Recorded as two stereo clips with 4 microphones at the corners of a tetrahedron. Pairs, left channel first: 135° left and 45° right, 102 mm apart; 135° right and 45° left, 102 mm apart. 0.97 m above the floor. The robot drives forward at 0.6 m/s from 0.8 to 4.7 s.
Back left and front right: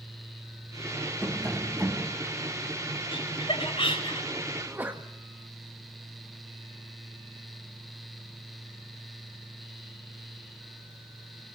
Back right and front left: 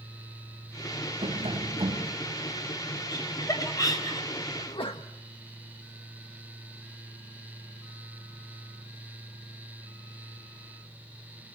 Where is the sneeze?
110° right, 1.4 m; by 5.1 s 115° right, 1.5 m.